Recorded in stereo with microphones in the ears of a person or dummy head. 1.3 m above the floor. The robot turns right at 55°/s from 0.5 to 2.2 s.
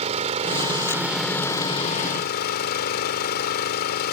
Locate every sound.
0.0 s an engine running: 40° right; by 4.1 s 55° left